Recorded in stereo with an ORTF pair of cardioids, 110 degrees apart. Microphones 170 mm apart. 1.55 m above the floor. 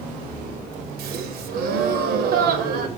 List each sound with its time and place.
1.0 s a gasp: 65° right, 0.7 m